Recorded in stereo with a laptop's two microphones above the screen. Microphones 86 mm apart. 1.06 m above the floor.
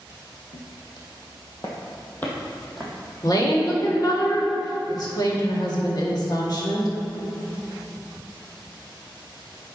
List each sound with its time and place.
0.5 s footsteps: 65° left (ahead or behind), 2.5 m; by 4.1 s 20° right (ahead or behind), 3 m
3.2 s a woman speaking: 50° left (ahead or behind), 1.5 m